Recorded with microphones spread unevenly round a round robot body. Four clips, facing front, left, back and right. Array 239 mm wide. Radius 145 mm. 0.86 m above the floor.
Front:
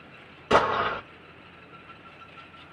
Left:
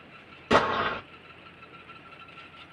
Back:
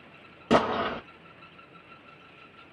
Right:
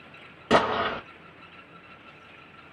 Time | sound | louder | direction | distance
0.5 | an explosion | right 1 dB, front 2 dB | 160° right | 1.3 m